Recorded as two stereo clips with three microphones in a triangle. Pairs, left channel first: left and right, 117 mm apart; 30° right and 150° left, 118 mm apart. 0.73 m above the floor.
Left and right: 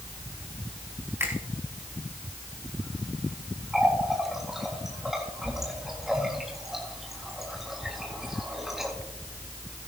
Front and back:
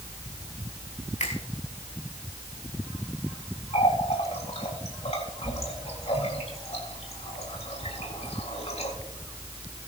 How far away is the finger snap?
About 4 m.